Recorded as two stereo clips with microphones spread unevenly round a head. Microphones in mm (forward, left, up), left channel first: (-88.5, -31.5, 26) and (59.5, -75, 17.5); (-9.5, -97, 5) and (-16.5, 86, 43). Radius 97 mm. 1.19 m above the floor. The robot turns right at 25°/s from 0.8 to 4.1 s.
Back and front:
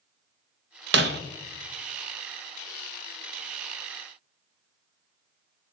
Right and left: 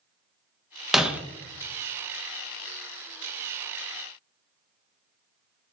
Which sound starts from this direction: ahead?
Breaking glass, at 0.9 s.